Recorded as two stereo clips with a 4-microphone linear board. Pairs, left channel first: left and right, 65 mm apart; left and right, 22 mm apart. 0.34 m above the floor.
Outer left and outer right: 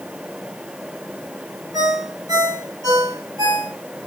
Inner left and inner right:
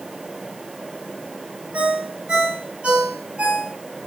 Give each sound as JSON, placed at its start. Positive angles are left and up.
{"t": 1.7, "sound": "a ringtone", "side_deg": -80, "distance_m": 4.0}